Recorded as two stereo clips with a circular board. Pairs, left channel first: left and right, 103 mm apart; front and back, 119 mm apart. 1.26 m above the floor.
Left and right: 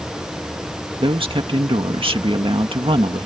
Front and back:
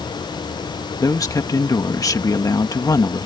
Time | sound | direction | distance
1.0 | a man speaking | 60° right | ?